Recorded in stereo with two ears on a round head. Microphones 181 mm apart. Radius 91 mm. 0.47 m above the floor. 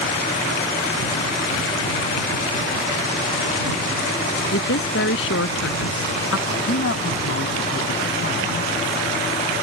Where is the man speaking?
65° left (ahead or behind).